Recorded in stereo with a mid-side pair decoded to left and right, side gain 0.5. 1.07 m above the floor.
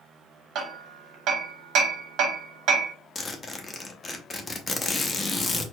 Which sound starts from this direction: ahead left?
A zipper, at 3.1 s.